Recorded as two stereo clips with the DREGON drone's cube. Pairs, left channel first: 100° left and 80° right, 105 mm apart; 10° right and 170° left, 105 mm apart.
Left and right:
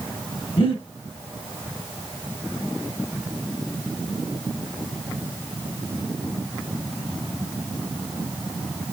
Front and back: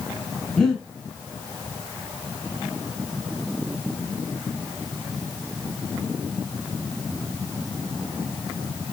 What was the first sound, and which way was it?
Breathing, 75° left.